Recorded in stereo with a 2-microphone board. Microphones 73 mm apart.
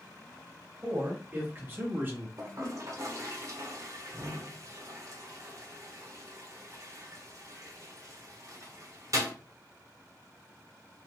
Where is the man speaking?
35° right (ahead or behind), 2.0 m; by 2.3 s 25° right (ahead or behind), 1.1 m.